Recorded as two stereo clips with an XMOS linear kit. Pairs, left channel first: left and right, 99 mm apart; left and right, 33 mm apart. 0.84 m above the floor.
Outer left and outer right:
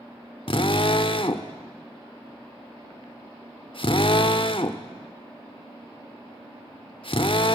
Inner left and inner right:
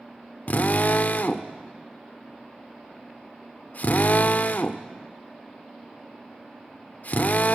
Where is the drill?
55° left (ahead or behind), 1.0 m.